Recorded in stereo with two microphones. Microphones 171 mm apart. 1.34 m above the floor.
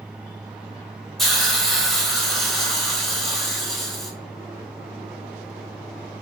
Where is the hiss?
Centre (ahead or behind), 0.7 m.